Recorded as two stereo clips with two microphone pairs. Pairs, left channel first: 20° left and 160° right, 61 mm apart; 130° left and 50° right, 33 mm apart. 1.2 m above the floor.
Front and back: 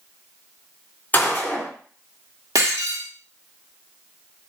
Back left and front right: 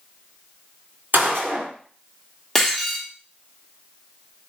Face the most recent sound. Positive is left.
turn(degrees=-150)